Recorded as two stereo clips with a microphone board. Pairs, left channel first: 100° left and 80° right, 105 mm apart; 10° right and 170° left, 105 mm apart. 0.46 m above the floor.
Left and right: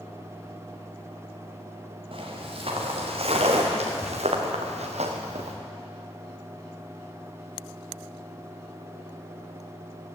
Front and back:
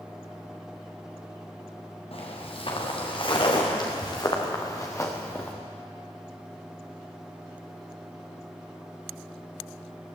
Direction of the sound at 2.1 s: 40° right.